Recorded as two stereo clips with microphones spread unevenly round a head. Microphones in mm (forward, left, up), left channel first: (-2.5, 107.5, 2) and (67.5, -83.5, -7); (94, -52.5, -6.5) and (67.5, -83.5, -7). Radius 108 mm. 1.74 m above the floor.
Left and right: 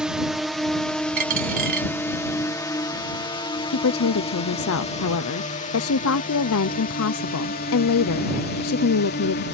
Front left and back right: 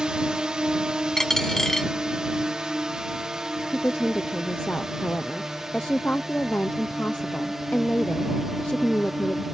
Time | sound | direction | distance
0.0 | a drone | 145° right | ?
1.2 | a dropped coin | 30° right | ?
3.7 | a woman speaking | 120° left | ?